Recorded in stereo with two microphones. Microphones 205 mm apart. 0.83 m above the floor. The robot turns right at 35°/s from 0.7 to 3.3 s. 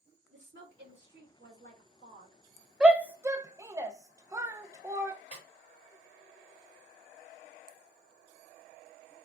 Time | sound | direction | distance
0.3 | a woman speaking | 85° right | 2 m
2.8 | a shout | 5° right (ahead or behind) | 0.5 m
5.3 | a snare drum | 35° left (ahead or behind) | 2 m